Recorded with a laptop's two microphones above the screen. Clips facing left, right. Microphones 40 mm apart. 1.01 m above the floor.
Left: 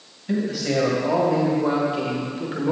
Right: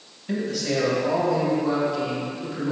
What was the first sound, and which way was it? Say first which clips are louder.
A man speaking: left 2 dB; centre (ahead or behind).